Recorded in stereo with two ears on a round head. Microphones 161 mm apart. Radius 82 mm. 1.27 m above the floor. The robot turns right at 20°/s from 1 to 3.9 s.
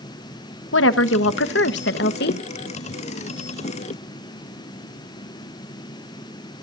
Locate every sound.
0.7 s a woman speaking: 85° left, 1.1 m; by 2.4 s 65° left (ahead or behind), 1.1 m